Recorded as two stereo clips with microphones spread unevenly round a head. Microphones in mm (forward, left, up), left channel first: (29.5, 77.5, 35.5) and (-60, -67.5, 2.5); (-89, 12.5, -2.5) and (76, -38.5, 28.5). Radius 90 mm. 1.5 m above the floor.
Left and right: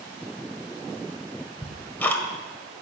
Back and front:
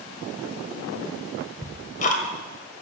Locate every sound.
1.6 s ticking: 120° left, 1.6 m